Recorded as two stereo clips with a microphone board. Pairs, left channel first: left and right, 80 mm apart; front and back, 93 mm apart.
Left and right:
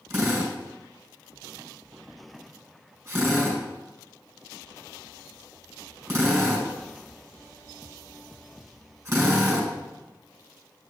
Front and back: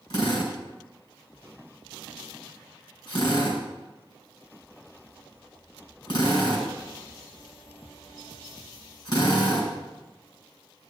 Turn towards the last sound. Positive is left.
turn(degrees=-25)